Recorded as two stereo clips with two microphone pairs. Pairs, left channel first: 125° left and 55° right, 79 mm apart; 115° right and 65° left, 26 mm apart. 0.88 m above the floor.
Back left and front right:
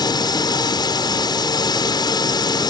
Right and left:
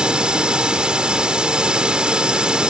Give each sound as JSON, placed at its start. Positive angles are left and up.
{"t": 0.0, "sound": "a drone", "azimuth_deg": 110}